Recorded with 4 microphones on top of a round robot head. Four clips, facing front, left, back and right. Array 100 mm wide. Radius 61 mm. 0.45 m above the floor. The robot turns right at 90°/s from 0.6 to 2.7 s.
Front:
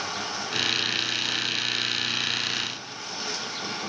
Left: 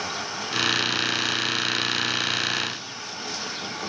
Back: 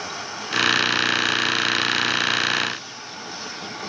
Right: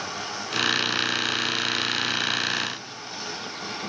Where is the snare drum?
No snare drum in this recording.